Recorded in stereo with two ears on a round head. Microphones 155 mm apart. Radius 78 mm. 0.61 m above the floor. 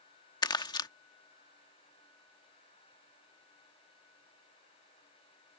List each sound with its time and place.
0.4 s crumpling: 25° left (ahead or behind)